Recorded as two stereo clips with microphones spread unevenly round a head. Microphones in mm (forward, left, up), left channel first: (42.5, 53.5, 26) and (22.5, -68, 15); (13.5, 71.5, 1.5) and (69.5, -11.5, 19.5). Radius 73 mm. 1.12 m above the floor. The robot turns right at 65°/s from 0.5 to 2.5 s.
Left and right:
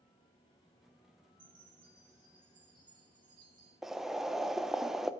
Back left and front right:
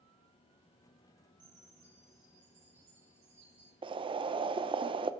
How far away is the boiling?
About 0.5 m.